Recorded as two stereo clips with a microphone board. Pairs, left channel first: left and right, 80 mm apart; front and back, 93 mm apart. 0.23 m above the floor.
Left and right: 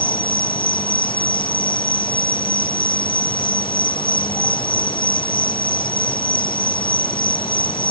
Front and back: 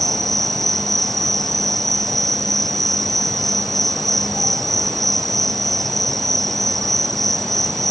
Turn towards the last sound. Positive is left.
turn(degrees=90)